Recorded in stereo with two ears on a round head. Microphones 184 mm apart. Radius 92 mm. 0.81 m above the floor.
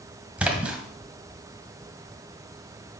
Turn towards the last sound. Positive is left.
turn(degrees=-5)  # may be behind; listen again after turning